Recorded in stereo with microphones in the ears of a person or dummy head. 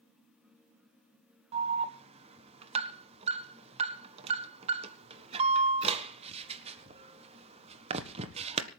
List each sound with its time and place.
1.5 s an alarm: 30° right (ahead or behind), 1.5 m